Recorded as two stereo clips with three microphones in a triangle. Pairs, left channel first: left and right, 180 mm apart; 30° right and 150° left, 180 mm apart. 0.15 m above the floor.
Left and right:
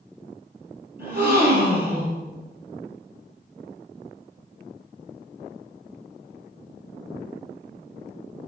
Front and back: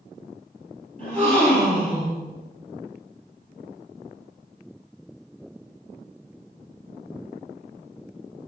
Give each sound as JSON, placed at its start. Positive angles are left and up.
{"t": 1.0, "sound": "a gasp", "azimuth_deg": -110, "distance_m": 3.0}